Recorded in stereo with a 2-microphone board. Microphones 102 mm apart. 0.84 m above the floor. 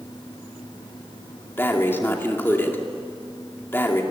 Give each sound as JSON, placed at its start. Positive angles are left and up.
{"t": 1.6, "sound": "breathing", "side_deg": 25, "distance_m": 2.0}